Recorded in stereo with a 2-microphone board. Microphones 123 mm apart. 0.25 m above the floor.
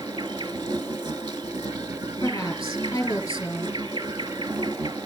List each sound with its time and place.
0.0 s an insect: 40° right (ahead or behind), 0.8 m
2.2 s a woman speaking: 25° left (ahead or behind), 2.5 m